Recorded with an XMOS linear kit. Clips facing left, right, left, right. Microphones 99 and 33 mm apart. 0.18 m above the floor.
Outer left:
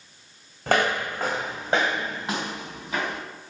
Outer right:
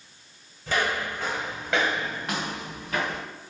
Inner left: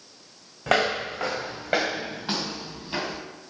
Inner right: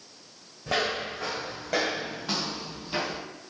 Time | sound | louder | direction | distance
0.7 | footsteps | outer left 4 dB, inner left 5 dB | 70° left (ahead or behind) | 0.7 m